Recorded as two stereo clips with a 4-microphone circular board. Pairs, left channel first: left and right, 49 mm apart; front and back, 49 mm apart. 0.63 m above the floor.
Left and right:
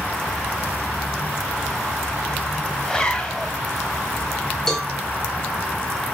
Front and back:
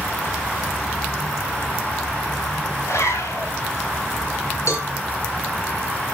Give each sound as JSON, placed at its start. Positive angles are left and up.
{"t": 2.9, "sound": "a zipper", "azimuth_deg": 15, "distance_m": 1.8}
{"t": 4.7, "sound": "a cowbell", "azimuth_deg": 10, "distance_m": 2.5}